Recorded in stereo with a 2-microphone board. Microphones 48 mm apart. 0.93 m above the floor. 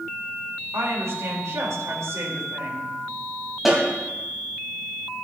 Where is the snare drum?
5° right (ahead or behind), 4 m.